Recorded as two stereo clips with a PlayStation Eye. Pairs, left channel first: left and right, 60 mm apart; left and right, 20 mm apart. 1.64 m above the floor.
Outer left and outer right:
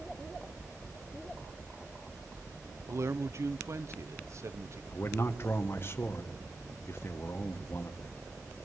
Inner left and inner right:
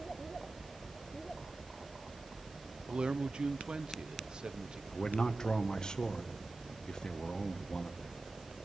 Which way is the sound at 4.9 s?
40° left (ahead or behind).